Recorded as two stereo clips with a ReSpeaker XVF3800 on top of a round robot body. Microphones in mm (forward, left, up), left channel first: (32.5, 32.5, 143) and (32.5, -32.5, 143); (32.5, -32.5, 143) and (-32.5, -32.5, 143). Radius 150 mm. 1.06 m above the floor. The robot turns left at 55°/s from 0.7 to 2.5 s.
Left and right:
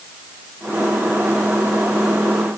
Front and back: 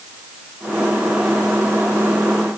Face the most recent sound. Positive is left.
No sound to turn to.